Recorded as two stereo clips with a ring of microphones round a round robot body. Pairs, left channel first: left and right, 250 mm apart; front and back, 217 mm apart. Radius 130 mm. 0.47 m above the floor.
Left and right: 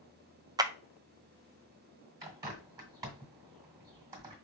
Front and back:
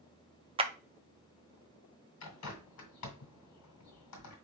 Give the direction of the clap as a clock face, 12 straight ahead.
5 o'clock.